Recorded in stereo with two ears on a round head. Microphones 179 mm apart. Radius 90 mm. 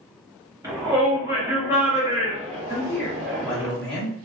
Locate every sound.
0.6 s a shout: 15° right (ahead or behind), 1.2 m; by 3.7 s 10° right (ahead or behind), 1.7 m
2.7 s a man speaking: 5° left (ahead or behind), 1.1 m